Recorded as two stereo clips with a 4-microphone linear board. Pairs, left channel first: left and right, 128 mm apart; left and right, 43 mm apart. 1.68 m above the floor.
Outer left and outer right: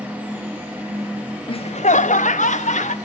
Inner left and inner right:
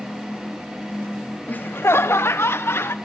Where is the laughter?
40° left (ahead or behind), 0.7 m; by 2.9 s 65° left (ahead or behind), 1.8 m.